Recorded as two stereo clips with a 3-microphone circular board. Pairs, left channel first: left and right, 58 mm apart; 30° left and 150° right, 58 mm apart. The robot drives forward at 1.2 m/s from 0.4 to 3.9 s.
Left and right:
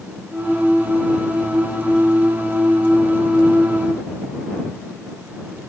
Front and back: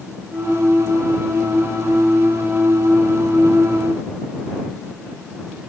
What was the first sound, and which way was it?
Only background noise.